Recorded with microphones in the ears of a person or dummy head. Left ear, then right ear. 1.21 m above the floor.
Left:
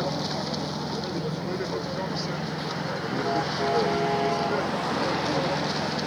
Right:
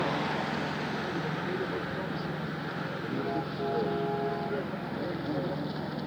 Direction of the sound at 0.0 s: 40° left (ahead or behind).